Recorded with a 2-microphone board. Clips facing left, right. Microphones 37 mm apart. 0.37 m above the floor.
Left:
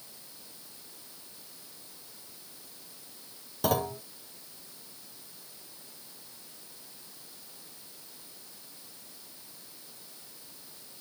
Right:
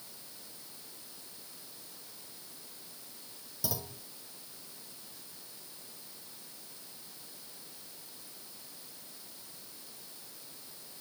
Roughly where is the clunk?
Left.